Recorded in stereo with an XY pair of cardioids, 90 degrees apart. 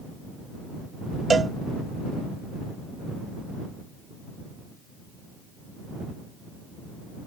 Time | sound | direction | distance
1.3 | a cowbell | 45° right | ?